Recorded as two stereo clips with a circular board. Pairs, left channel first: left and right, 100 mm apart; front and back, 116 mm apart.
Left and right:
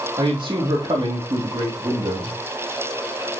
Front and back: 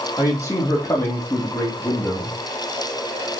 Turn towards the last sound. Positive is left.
turn(degrees=-75)